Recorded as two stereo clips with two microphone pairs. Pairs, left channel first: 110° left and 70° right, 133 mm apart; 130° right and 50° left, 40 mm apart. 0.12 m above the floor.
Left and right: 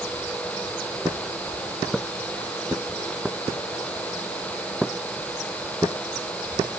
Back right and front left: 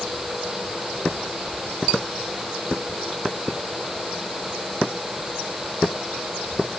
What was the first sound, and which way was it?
Only background noise.